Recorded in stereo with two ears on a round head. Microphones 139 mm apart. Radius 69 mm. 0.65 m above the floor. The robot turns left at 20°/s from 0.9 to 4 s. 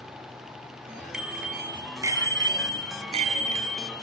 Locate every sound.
1.1 s a bicycle bell: 5° right, 3.5 m; by 3.9 s 60° right, 3.5 m